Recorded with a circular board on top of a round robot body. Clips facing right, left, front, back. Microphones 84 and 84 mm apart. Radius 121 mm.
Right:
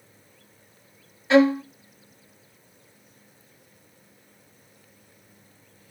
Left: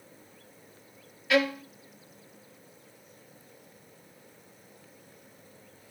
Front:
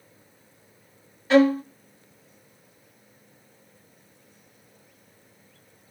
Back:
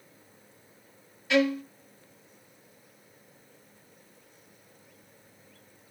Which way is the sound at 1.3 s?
40° right.